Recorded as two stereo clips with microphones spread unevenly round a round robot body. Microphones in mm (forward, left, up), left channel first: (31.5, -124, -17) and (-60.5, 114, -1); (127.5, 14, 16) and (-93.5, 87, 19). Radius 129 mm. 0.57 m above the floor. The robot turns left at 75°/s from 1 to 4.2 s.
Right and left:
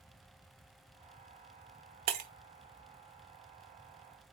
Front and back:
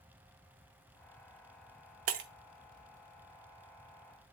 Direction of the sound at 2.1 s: 140° left.